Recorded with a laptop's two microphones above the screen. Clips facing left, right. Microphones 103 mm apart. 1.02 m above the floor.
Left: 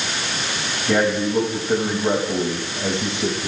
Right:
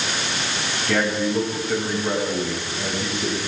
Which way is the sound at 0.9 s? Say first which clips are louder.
Left 3 dB; 20° left (ahead or behind).